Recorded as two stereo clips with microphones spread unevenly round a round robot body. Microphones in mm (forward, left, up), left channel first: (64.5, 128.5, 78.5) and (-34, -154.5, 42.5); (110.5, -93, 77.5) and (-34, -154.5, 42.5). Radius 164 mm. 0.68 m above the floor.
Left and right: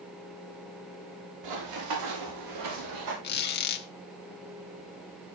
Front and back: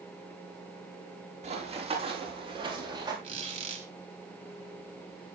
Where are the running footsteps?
110° right, 6 m; by 3.1 s 90° right, 7 m.